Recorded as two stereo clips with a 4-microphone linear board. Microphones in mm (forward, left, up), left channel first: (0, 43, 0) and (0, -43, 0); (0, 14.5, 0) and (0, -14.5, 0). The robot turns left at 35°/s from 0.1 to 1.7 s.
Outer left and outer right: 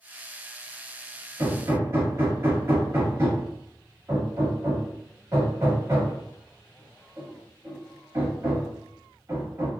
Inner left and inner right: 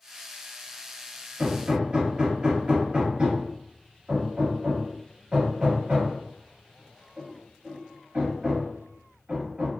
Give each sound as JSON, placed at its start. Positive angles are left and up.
{"t": 1.4, "sound": "hammering", "side_deg": -40, "distance_m": 1.3}